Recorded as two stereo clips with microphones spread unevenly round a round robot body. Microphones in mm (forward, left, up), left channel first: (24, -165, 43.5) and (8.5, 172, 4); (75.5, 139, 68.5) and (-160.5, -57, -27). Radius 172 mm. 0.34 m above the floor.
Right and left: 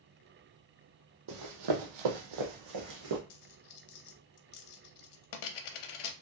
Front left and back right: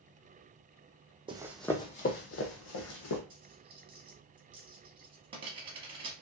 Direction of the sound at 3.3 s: 70° right.